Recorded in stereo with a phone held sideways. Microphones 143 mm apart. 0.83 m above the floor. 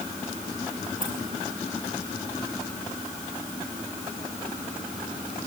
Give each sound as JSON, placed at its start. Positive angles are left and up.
{"t": 1.0, "sound": "keys jangling", "side_deg": -70, "distance_m": 6.0}